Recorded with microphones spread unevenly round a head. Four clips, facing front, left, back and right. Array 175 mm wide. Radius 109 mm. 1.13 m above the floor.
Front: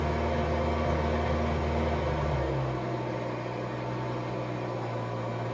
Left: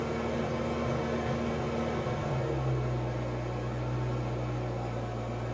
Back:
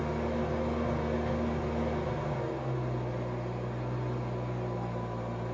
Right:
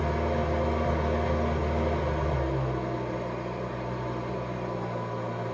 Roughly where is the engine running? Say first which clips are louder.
Right 4 dB, front 3 dB; ahead right.